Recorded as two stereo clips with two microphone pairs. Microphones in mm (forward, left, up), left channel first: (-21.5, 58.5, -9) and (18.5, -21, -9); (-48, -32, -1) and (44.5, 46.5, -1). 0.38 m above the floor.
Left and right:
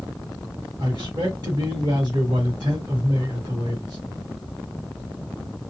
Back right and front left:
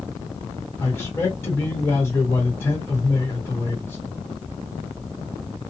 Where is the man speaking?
75° right, 1.4 m.